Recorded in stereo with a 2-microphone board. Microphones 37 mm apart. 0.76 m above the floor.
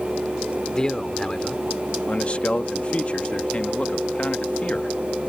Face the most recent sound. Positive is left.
turn(degrees=35)  # may be behind; listen again after turning